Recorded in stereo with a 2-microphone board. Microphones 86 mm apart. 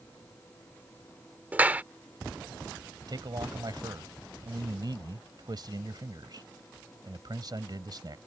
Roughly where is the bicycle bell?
No bicycle bell in this recording.